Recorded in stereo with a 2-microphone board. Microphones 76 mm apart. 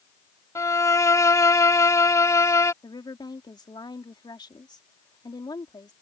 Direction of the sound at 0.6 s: 45° left (ahead or behind).